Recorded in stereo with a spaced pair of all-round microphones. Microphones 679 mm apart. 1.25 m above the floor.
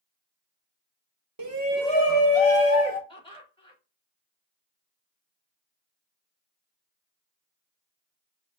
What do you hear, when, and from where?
1.4 s a shout: 30° right (ahead or behind), 0.9 m; by 3.0 s 60° left (ahead or behind), 1.6 m
3.1 s laughter: 10° left (ahead or behind), 1.9 m